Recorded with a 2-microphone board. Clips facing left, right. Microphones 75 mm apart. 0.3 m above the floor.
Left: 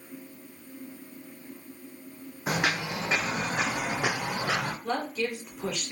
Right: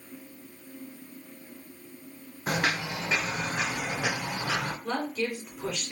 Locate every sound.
2.5 s footsteps: 5° left (ahead or behind), 0.8 m; by 4.7 s 55° left (ahead or behind), 2 m
4.8 s a woman speaking: 5° left (ahead or behind), 2.5 m